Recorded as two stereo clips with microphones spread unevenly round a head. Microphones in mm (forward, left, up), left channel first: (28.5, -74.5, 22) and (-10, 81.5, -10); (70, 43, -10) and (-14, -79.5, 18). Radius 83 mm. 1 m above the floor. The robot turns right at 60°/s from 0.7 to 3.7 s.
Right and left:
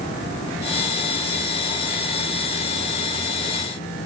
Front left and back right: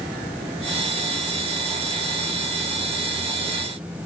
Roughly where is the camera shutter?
No camera shutter in this recording.